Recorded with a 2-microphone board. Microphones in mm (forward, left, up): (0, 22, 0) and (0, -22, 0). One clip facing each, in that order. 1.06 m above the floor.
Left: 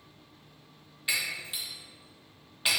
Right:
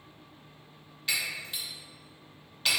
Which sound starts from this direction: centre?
Breaking glass, at 1.1 s.